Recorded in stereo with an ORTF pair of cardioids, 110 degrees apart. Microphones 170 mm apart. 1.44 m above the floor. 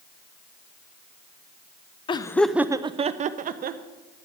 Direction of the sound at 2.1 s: 30° left.